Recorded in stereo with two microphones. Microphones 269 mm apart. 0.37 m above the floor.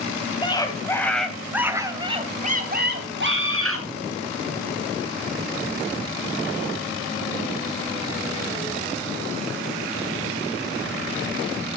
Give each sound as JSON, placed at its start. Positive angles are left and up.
{"t": 0.4, "sound": "a scream", "side_deg": 15, "distance_m": 2.5}